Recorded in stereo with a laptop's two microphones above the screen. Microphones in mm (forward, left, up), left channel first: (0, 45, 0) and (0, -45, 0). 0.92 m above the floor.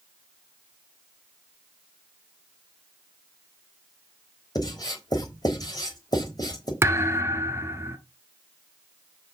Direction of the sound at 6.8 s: 30° right (ahead or behind).